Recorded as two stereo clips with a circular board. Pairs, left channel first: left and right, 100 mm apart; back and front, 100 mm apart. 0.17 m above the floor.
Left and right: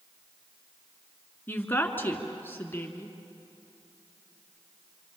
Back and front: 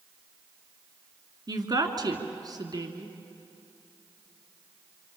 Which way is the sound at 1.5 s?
30° left.